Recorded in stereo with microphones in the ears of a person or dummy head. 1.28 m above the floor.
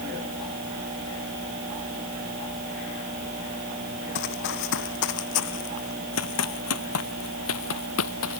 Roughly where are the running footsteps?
Left.